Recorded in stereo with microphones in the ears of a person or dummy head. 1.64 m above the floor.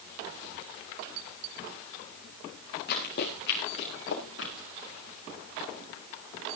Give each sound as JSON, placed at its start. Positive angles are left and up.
{"t": 2.9, "sound": "running footsteps", "side_deg": 55, "distance_m": 6.5}